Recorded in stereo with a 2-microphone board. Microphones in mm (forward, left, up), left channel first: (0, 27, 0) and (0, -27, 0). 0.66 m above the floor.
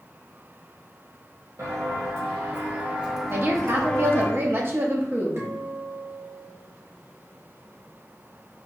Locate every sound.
1.6 s footsteps: 55° right (ahead or behind), 1.2 m; by 4.3 s 30° left (ahead or behind), 1.0 m
3.3 s a woman speaking: 45° right (ahead or behind), 0.7 m
5.4 s a guitar: 50° right (ahead or behind), 0.9 m